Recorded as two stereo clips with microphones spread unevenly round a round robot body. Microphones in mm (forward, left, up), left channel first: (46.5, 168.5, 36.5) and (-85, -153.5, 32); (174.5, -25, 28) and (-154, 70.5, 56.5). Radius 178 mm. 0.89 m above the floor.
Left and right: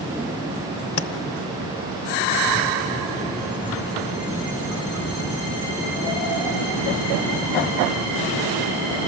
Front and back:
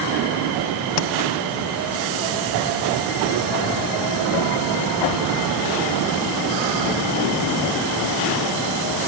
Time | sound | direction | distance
1.0 | tapping | 15° left | 1.0 m